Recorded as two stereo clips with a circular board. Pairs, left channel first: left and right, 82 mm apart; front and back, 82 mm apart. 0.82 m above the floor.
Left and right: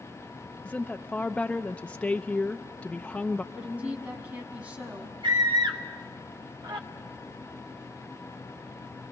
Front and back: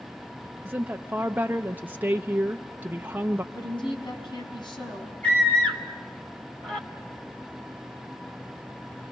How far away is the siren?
I don't hear a siren.